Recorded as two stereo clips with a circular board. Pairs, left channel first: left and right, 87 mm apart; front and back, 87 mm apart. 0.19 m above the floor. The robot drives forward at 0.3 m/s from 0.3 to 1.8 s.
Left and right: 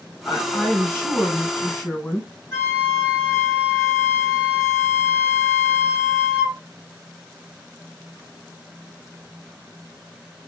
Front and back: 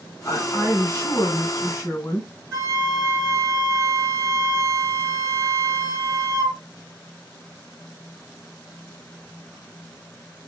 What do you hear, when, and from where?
0.2 s a woman speaking: 35° left, 1.7 m; by 2.3 s 55° left, 1.5 m
2.5 s a flute: 125° left, 2.5 m